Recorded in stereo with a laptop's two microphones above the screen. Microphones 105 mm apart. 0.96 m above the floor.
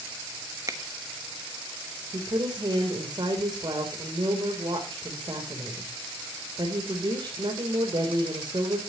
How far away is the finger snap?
About 1.1 m.